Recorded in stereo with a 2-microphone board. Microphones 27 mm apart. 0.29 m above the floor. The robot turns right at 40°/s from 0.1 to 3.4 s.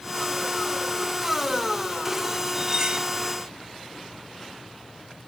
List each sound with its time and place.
2.5 s cutlery clinking: 15° right (ahead or behind), 1.2 m; by 3.1 s 35° right (ahead or behind), 1.2 m